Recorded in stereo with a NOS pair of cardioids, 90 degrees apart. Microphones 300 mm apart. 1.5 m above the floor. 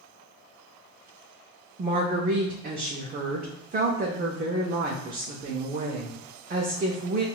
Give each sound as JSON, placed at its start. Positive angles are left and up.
{"t": 1.8, "sound": "a woman speaking", "azimuth_deg": -30, "distance_m": 0.6}